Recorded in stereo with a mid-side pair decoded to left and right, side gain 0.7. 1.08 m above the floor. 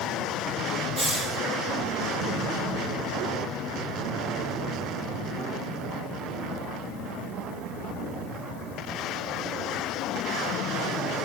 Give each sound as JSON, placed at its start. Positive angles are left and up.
{"t": 1.0, "sound": "a hiss", "azimuth_deg": -25, "distance_m": 9.0}